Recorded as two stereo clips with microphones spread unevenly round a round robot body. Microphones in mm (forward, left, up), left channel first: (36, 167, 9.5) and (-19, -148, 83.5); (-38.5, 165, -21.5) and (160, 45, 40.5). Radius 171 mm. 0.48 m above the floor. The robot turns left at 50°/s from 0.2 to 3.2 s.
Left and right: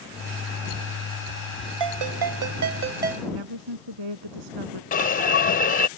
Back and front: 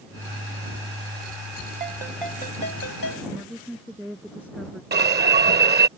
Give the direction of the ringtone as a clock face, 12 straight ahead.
4 o'clock.